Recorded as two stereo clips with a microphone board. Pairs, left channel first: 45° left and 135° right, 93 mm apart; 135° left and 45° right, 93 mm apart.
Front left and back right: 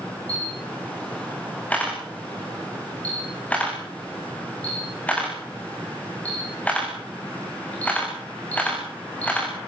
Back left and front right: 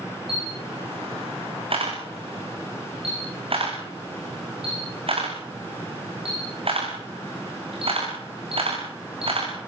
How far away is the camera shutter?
About 7.5 m.